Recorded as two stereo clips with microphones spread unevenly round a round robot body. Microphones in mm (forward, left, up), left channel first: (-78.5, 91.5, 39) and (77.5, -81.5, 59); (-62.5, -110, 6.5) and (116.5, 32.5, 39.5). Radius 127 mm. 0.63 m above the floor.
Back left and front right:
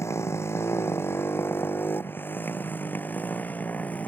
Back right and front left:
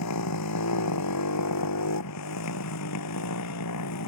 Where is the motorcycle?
150° right; by 4.1 s 145° right.